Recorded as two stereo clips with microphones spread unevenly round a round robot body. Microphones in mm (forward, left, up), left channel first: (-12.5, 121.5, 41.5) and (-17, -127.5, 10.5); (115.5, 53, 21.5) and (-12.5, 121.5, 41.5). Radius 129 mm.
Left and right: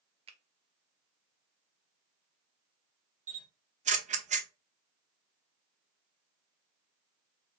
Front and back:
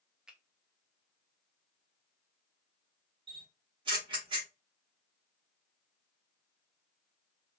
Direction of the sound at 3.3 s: 145° right.